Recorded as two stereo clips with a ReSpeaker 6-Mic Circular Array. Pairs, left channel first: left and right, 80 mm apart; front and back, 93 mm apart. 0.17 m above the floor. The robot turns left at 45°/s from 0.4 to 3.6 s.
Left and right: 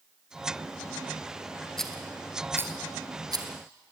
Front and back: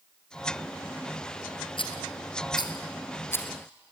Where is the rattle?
10° left, 2.5 m; by 3.5 s 70° right, 2.5 m.